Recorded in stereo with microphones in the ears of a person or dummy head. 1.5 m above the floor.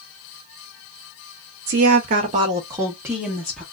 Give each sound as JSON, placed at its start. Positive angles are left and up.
{"t": 1.7, "sound": "a woman speaking", "side_deg": -70, "distance_m": 0.9}